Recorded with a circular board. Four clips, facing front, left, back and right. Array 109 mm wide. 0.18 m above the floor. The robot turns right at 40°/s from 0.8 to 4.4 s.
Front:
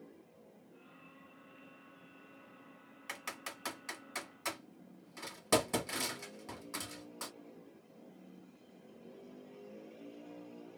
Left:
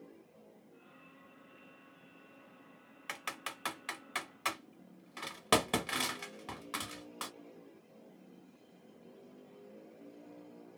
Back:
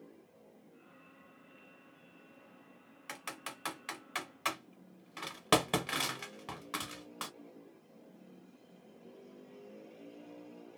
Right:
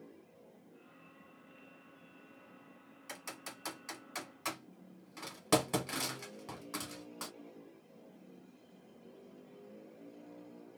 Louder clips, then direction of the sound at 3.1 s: Left 5 dB, back 1 dB; 95° left.